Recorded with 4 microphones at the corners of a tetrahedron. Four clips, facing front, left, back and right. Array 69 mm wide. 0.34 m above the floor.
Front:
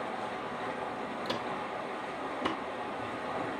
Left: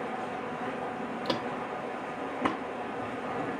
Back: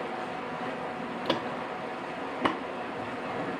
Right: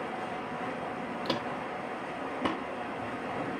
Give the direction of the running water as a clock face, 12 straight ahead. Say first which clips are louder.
Left 1 dB, back 2 dB; 6 o'clock.